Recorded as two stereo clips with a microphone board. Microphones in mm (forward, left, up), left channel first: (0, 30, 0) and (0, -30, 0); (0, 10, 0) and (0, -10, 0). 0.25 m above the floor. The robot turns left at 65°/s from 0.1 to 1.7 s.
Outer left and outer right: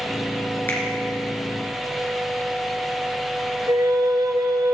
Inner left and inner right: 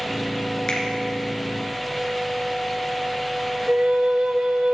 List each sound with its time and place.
0.7 s a finger snap: 30° left (ahead or behind), 3.5 m; by 0.8 s 40° left (ahead or behind), 3.5 m
3.7 s a flute: 80° right, 1.2 m